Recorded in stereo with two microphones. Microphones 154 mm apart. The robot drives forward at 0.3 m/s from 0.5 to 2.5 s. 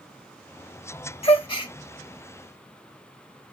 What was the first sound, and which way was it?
A gasp, 40° left (ahead or behind).